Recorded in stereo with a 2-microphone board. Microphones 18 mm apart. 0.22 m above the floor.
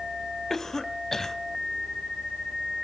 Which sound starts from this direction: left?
A cough, at 0.5 s.